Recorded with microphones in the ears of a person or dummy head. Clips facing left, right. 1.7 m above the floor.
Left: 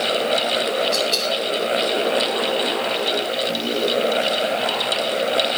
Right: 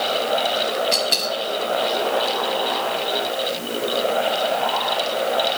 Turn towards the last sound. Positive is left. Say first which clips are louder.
# left 2 dB
turn(degrees=-10)  # may be behind; listen again after turning